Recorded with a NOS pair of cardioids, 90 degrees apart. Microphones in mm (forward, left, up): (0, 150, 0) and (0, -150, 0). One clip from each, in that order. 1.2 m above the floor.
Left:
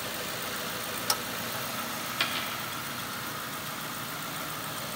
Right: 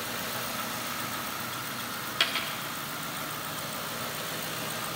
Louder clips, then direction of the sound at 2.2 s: Right 3 dB; 20° right.